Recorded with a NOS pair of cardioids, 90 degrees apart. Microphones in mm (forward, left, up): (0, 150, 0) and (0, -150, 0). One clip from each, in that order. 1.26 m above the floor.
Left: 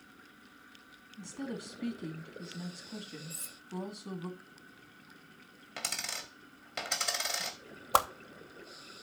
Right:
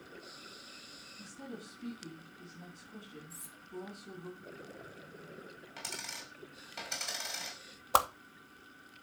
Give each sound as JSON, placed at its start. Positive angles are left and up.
{"t": 1.2, "sound": "a woman speaking", "azimuth_deg": 65, "distance_m": 2.5}
{"t": 3.3, "sound": "cutlery clinking", "azimuth_deg": 40, "distance_m": 1.0}
{"t": 5.8, "sound": "a dropped coin", "azimuth_deg": 50, "distance_m": 1.7}
{"t": 7.9, "sound": "a whoosh", "azimuth_deg": 0, "distance_m": 0.8}